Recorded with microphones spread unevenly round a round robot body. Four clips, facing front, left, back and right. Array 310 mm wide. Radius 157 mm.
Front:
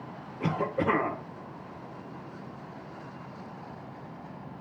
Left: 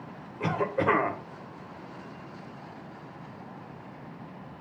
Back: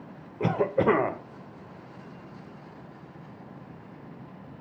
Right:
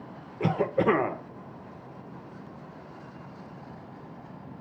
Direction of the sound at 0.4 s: 150° right.